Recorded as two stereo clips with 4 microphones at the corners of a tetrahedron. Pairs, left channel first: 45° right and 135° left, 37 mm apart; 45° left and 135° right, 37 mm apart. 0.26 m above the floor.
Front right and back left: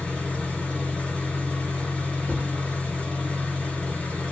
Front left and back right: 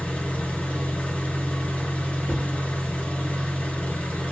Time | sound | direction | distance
0.0 | an engine running | 10° left | 1.6 m
2.2 | a cupboard door | 25° left | 1.5 m